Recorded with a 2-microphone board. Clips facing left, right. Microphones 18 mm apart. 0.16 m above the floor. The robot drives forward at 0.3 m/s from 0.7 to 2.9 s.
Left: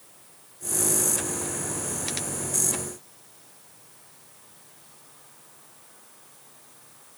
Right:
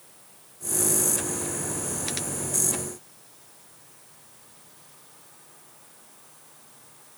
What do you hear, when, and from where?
Only background noise.